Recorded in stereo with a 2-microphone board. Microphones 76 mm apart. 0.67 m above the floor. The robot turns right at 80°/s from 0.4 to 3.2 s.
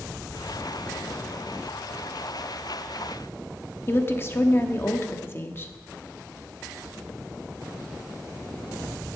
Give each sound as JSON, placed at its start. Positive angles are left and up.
{"t": 3.9, "sound": "a woman speaking", "side_deg": 30, "distance_m": 0.9}